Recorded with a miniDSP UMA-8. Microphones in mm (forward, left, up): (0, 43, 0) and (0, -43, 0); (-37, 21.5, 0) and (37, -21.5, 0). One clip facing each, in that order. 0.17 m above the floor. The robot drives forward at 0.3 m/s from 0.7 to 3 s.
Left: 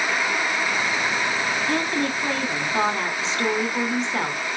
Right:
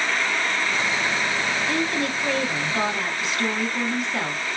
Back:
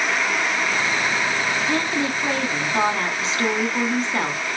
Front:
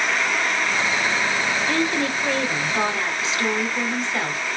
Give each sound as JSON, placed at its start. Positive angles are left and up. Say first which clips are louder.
{"t": 1.7, "sound": "a woman speaking", "louder": "left 1 dB, even", "azimuth_deg": 100, "distance_m": 1.3}